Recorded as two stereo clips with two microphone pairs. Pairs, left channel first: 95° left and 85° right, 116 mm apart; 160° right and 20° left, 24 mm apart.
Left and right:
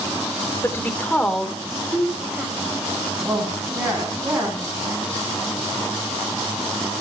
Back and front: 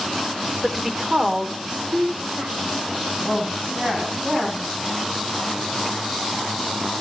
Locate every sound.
0.6 s a woman speaking: 80° left, 1.4 m; by 4.6 s 20° right, 5 m